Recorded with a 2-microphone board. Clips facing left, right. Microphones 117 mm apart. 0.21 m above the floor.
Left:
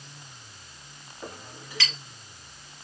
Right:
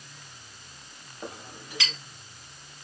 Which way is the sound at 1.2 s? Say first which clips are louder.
Right 1 dB; 20° right (ahead or behind).